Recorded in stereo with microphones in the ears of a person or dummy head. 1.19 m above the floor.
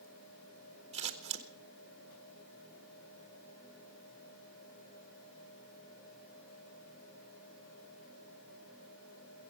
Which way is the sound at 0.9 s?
25° right (ahead or behind).